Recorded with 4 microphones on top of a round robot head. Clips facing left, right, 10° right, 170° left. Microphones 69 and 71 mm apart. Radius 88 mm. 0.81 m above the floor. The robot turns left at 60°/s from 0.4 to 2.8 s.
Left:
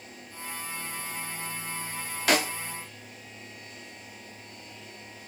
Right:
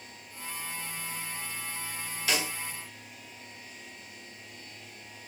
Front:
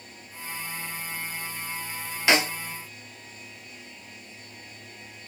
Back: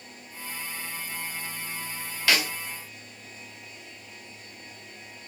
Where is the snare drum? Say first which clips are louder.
Left 7 dB, front 3 dB; 60° left, 2.0 m; by 2.5 s 45° left, 2.0 m.